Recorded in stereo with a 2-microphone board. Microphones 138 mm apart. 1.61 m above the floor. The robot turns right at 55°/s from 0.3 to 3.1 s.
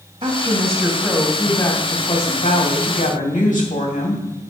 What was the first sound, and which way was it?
A woman speaking, 40° right.